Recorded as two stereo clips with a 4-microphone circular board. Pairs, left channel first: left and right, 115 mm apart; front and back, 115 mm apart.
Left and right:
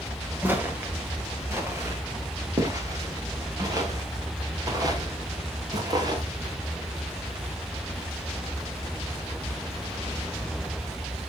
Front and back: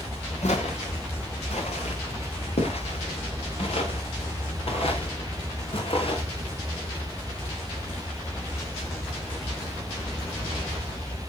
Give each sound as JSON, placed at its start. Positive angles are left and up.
{"t": 0.4, "sound": "footsteps", "azimuth_deg": -15, "distance_m": 3.0}